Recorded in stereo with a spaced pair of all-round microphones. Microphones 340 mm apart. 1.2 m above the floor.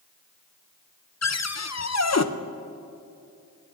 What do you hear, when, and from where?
1.2 s a cupboard door: 50° left (ahead or behind), 0.5 m